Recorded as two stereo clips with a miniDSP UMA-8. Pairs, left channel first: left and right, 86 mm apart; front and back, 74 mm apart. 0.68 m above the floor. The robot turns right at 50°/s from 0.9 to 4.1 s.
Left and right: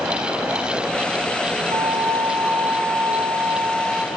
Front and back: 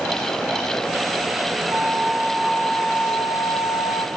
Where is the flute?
115° right, 1.2 m; by 4.1 s straight ahead, 1.2 m.